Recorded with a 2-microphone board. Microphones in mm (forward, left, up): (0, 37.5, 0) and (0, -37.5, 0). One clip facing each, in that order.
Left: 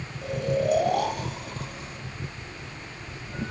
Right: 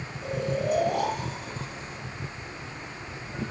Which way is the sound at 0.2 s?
65° left (ahead or behind).